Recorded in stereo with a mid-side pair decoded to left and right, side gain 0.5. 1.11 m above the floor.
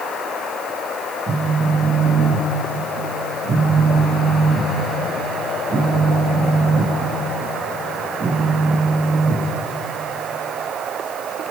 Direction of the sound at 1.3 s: 40° right.